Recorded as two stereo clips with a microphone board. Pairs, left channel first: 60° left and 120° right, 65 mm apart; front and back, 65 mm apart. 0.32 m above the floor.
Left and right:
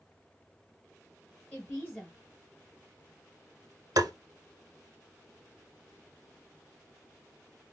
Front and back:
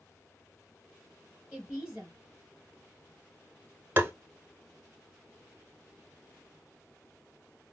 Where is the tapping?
125° right, 0.6 m.